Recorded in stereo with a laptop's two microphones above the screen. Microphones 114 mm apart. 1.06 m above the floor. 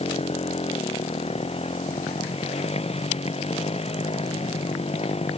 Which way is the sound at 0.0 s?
60° left (ahead or behind).